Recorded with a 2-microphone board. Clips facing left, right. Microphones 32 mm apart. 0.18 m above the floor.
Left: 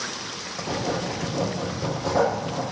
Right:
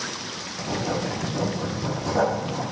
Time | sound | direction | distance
0.6 | writing | 40° left (ahead or behind) | 6.5 m